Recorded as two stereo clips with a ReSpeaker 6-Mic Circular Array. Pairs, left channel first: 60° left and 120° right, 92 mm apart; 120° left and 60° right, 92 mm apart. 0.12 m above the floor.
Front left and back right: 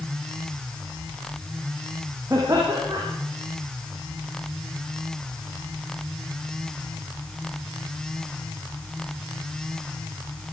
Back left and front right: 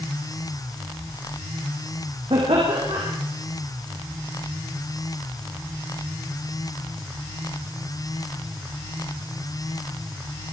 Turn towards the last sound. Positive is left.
turn(degrees=-65)